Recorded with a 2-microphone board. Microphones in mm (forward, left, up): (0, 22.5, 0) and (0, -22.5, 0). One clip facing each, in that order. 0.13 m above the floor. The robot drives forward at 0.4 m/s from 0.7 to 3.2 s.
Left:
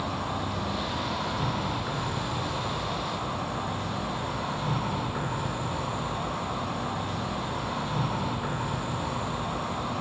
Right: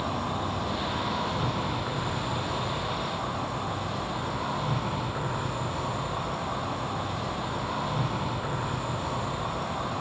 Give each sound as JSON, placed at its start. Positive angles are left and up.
{"t": 0.0, "sound": "an insect", "side_deg": -35, "distance_m": 1.3}